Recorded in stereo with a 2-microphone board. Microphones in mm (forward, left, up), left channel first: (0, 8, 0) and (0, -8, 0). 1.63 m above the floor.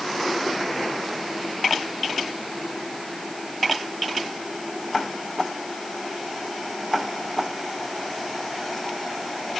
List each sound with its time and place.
Only background noise.